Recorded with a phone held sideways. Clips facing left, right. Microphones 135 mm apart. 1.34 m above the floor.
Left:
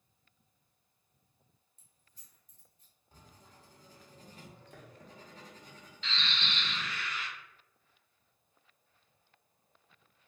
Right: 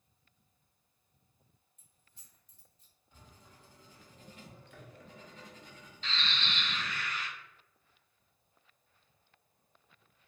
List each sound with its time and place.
1.8 s keys jangling: 35° left (ahead or behind), 1.1 m; by 2.9 s 60° left (ahead or behind), 0.9 m
3.1 s writing: 40° left (ahead or behind), 0.7 m
6.0 s a bird: 40° right (ahead or behind), 0.7 m